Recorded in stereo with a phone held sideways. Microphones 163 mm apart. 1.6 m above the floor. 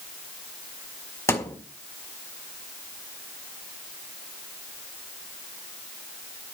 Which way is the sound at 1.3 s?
15° left (ahead or behind).